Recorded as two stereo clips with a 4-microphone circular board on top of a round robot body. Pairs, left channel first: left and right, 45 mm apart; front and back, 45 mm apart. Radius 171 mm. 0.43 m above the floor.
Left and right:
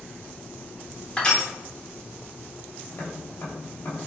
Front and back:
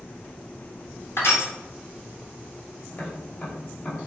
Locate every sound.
1.2 s crushing: 20° left, 2.5 m
2.9 s tapping: 50° left, 3 m